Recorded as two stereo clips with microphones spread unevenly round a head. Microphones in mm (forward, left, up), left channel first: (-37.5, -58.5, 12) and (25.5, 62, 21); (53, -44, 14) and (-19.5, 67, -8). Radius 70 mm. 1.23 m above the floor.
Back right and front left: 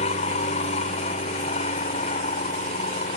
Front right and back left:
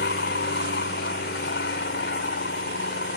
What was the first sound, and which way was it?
An aircraft, 70° right.